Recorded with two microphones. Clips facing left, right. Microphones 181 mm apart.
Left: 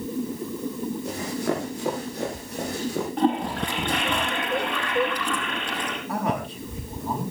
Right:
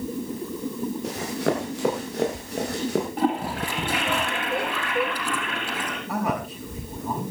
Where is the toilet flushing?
5° right (ahead or behind), 5 m.